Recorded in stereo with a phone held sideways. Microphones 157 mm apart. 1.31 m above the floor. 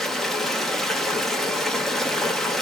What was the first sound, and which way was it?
Running water, centre (ahead or behind).